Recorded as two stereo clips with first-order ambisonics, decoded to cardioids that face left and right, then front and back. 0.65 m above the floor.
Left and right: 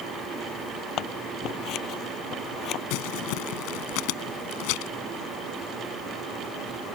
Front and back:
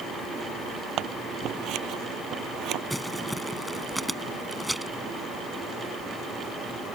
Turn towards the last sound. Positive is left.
turn(degrees=95)